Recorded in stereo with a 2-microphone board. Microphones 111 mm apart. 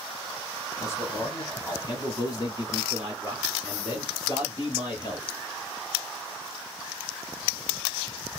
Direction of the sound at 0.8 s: 25° left (ahead or behind).